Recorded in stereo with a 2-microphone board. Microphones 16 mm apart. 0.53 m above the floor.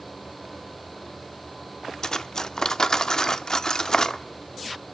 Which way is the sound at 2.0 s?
35° left (ahead or behind).